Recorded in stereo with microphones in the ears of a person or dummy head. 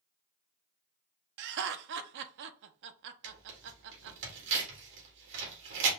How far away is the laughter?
About 0.6 m.